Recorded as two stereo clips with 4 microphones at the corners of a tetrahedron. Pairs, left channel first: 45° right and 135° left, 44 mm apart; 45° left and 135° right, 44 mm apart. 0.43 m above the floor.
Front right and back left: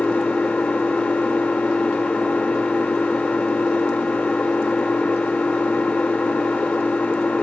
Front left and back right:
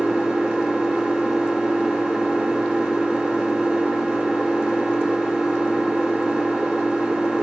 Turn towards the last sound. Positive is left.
turn(degrees=-75)